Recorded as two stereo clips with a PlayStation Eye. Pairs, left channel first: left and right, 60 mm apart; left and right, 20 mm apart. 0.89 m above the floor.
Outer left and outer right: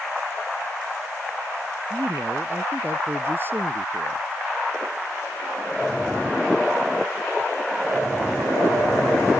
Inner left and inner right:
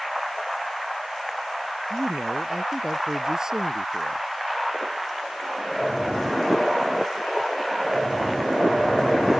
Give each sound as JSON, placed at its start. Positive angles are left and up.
{"t": 1.9, "sound": "a man speaking", "side_deg": -35}